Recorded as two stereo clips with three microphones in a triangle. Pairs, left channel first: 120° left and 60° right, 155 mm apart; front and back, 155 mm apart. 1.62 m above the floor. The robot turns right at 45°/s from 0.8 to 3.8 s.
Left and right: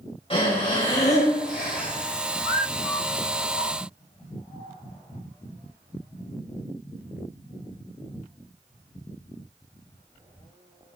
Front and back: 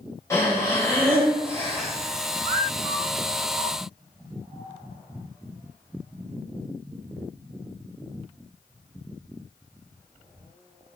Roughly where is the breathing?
Left.